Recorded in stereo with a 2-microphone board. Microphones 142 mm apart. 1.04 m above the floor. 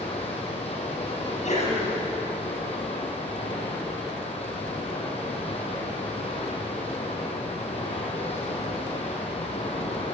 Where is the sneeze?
55° left (ahead or behind), 9 m.